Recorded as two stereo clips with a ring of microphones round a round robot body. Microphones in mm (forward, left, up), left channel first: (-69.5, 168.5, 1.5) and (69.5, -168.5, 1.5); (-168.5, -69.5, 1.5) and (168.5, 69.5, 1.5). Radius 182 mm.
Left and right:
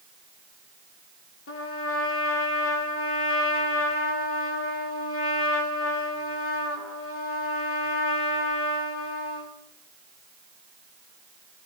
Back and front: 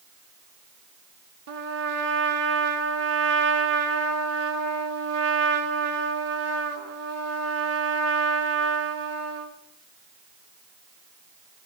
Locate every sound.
1.5 s a trumpet: 65° left, 2.0 m